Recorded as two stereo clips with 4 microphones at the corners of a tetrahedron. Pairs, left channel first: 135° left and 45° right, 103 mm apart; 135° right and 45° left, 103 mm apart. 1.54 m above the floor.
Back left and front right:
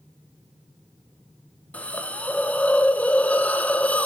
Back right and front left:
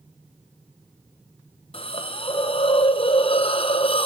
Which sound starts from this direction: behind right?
A hiss, at 1.7 s.